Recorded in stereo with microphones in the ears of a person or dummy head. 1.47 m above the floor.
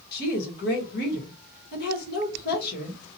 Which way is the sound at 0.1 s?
60° left (ahead or behind).